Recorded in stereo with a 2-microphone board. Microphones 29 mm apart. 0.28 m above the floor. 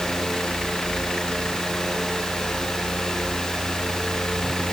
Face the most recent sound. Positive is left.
No sound to turn to.